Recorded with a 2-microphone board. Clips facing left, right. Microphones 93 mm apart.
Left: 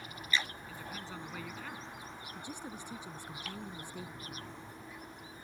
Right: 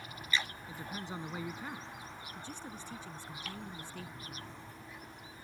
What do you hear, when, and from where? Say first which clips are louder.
0.7 s a woman speaking: right 2 dB; 20° right (ahead or behind)
2.4 s a woman speaking: left 2 dB; 15° left (ahead or behind)